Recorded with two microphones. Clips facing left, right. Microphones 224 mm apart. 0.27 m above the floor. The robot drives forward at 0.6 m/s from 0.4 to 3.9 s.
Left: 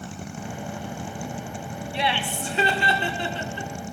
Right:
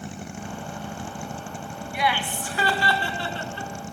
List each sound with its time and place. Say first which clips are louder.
1.9 s laughter: right 1 dB; 30° left (ahead or behind), 1.5 m; by 3.7 s 15° left (ahead or behind), 2.5 m